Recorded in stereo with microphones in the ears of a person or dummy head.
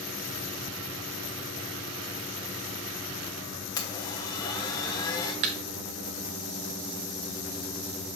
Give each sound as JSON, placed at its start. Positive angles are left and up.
{"t": 3.8, "sound": "a blender", "side_deg": 15, "distance_m": 1.3}
{"t": 5.4, "sound": "a thud", "side_deg": -35, "distance_m": 0.5}